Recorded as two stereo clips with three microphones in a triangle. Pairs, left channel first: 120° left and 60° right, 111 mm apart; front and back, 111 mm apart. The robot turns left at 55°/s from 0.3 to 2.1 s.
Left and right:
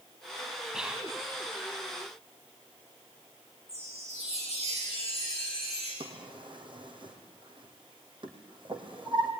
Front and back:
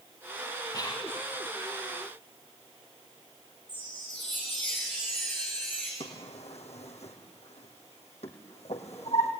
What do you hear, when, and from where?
0.7 s whispering: 25° left, 1.7 m; by 1.1 s 5° left, 1.7 m
3.7 s a chime: 75° right, 8.5 m
6.0 s a drawer: 15° right, 3 m